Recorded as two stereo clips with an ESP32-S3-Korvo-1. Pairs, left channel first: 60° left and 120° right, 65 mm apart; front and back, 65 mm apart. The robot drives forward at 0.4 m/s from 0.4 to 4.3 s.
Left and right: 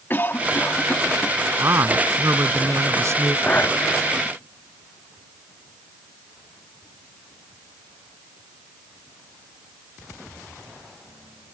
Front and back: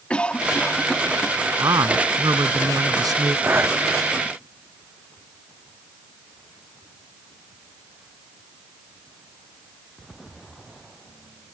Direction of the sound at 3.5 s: 125° left.